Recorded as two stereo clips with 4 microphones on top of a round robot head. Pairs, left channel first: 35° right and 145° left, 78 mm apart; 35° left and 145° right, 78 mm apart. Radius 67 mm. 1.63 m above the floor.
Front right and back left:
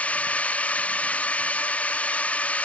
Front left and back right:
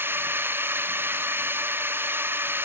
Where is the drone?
100° right.